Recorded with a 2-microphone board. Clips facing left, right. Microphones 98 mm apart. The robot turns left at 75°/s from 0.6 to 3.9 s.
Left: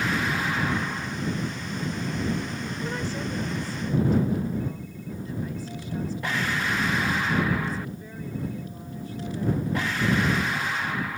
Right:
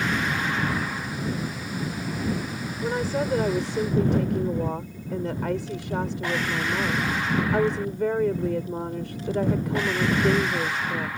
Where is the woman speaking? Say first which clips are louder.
Right 8 dB; 25° right; by 11.1 s 105° right.